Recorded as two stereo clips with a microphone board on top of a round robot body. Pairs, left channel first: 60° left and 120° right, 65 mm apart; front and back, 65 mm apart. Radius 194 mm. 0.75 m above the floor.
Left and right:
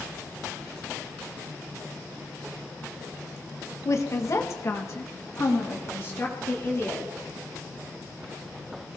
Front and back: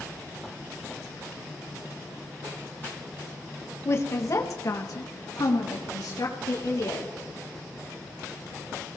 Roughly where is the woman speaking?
Ahead left.